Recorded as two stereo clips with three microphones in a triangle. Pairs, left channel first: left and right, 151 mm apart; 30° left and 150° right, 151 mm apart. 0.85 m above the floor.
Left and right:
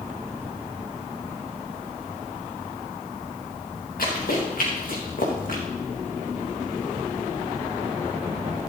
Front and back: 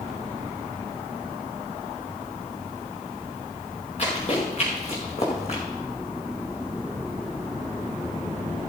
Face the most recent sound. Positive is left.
turn(degrees=70)